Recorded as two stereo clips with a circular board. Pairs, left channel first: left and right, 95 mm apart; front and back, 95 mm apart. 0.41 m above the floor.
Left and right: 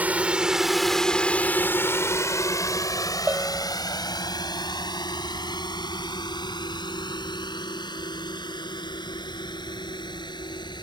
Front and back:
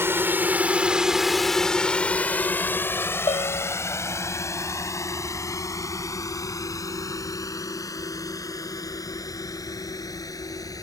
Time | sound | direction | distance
0.0 | a drone | 145° right | ?
3.3 | a bell | 20° right | ?